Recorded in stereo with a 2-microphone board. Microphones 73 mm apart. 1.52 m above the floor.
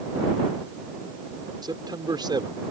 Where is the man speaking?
80° right; by 2.7 s 85° right.